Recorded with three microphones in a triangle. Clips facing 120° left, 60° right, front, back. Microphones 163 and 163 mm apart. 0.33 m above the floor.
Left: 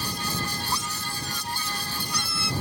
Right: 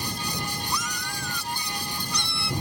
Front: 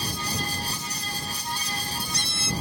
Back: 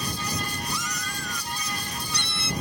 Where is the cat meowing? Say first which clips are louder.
Even, back 2 dB; straight behind; by 2.5 s 150° right.